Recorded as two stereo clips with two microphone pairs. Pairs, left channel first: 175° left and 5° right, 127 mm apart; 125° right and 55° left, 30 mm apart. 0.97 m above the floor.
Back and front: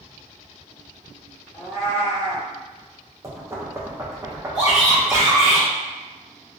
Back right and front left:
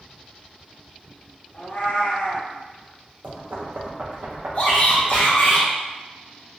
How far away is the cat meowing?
About 2.0 m.